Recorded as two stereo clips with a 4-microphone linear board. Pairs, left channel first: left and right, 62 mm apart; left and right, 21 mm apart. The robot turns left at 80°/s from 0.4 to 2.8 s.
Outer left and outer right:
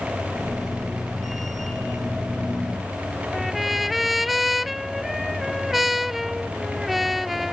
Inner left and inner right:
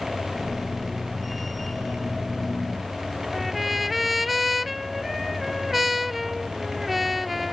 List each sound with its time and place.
3.3 s a trumpet: 5° right (ahead or behind)